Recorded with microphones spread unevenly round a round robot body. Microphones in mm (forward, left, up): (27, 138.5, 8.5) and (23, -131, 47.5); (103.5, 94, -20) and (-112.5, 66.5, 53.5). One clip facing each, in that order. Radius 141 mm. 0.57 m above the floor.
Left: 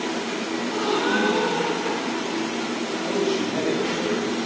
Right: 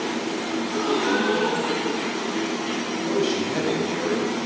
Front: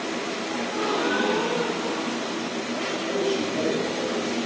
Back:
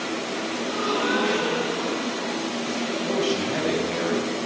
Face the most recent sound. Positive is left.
turn(degrees=-160)